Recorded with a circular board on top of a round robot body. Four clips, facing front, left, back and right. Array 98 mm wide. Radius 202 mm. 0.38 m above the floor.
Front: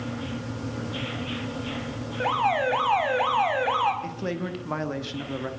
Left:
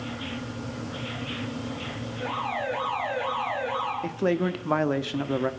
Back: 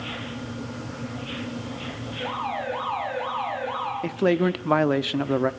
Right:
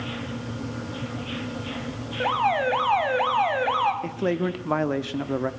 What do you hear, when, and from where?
2.2 s an alarm: 55° right, 5 m
4.0 s a man speaking: 175° left, 1.5 m